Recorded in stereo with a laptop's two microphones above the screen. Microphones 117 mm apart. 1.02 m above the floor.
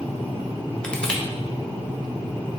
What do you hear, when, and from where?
0.8 s crushing: 5° left (ahead or behind), 0.9 m